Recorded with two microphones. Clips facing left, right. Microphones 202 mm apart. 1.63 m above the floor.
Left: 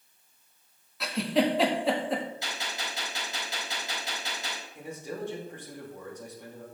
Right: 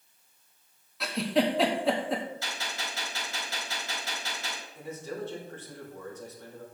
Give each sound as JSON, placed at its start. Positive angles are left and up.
{"t": 1.0, "sound": "a giggle", "side_deg": 0, "distance_m": 1.4}
{"t": 2.4, "sound": "a gunshot", "side_deg": 20, "distance_m": 4.5}
{"t": 4.8, "sound": "a man speaking", "side_deg": 15, "distance_m": 2.5}